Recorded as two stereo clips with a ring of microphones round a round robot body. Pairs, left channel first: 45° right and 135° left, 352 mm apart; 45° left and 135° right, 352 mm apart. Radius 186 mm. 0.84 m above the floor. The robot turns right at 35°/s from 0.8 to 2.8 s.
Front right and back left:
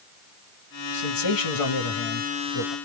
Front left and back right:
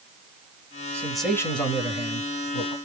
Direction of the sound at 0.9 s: 55° right.